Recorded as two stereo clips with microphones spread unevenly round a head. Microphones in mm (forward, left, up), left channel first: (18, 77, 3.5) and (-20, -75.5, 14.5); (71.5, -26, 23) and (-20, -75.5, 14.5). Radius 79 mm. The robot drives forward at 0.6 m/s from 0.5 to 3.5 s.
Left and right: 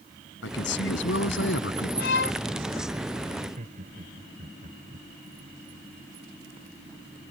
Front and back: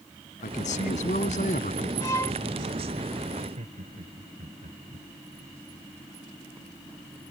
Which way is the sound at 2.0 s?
95° left.